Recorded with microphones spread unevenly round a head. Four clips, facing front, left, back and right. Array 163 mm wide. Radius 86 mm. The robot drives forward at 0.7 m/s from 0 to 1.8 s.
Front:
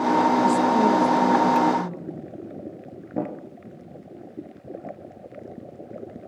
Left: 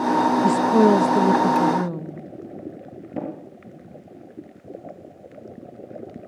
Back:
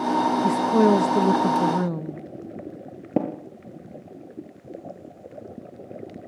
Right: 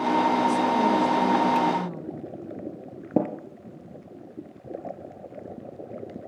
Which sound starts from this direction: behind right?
Tapping, at 3.2 s.